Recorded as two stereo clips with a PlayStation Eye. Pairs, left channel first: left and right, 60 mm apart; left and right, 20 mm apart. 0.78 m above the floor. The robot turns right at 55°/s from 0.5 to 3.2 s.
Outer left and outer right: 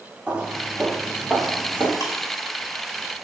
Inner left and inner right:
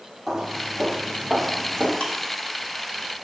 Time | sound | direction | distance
0.3 | footsteps | 20° right (ahead or behind) | 3 m
2.0 | ticking | 70° left (ahead or behind) | 1.9 m